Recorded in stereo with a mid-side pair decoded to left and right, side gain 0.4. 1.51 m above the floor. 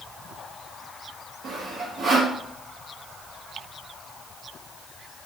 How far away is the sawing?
About 1.7 m.